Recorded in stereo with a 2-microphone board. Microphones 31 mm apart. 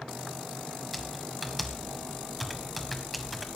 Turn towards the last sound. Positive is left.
turn(degrees=0)  # may be behind; listen again after turning